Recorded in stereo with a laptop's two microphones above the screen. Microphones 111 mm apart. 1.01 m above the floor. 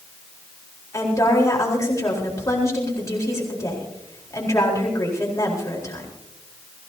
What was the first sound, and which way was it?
A woman speaking, 30° left (ahead or behind).